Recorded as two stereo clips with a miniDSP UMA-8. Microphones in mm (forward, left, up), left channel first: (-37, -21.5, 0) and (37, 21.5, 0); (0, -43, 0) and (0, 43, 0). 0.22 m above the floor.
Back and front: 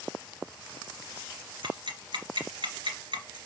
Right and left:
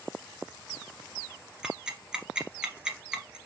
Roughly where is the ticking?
Ahead.